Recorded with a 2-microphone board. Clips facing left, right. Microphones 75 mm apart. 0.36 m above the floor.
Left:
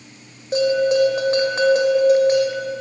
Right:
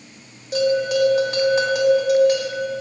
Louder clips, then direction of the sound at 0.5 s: Left 2 dB; 35° left (ahead or behind).